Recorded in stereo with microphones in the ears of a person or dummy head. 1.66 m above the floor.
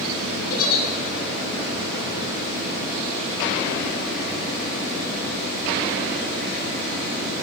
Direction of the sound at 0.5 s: 60° left (ahead or behind).